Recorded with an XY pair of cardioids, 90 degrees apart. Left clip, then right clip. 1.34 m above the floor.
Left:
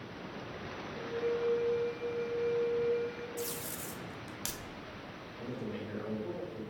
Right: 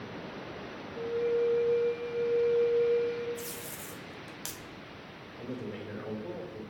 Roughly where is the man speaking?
Ahead right.